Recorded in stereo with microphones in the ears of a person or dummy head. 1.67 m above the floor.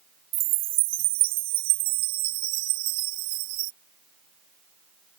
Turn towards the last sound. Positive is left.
turn(degrees=-45)  # may be behind; listen again after turning